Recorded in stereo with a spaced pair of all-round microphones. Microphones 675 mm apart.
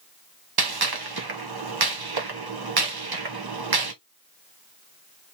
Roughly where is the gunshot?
Right.